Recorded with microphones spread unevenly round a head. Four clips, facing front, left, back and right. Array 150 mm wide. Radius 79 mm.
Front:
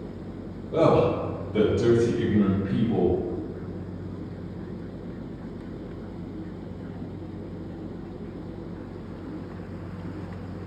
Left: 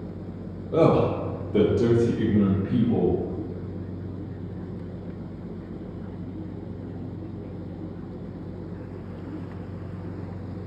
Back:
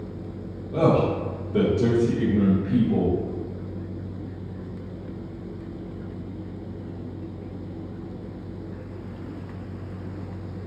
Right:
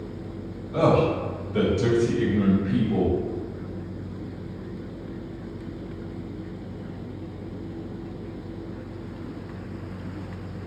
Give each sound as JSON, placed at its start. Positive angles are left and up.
{"t": 0.7, "sound": "a man speaking", "azimuth_deg": 80, "distance_m": 0.9}